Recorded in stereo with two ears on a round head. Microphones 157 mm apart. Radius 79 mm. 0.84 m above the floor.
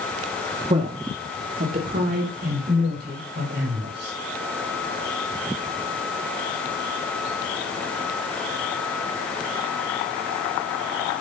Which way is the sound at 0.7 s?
35° right (ahead or behind).